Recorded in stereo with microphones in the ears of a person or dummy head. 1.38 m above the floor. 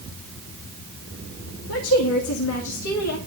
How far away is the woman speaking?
About 3 m.